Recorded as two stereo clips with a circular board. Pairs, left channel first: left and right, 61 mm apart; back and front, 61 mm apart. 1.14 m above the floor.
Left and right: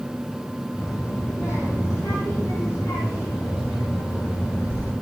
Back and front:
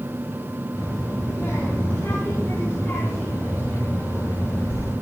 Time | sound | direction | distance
0.8 | a child speaking | 125° left | 6 m